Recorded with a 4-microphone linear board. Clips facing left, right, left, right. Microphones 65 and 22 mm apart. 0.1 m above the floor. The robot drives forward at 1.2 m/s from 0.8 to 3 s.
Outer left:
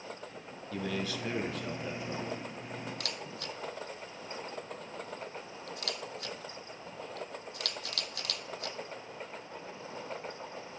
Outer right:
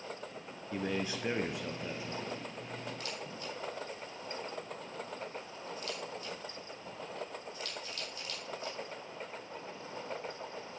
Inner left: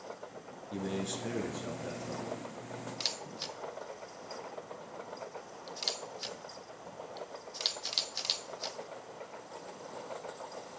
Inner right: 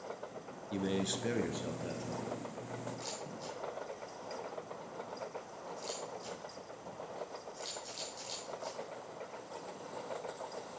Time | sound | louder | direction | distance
0.7 | a man speaking | even, inner right 1 dB | 25° right (ahead or behind) | 1.1 m
3.0 | a camera shutter | outer left 1 dB, inner left 6 dB | 70° left (ahead or behind) | 0.6 m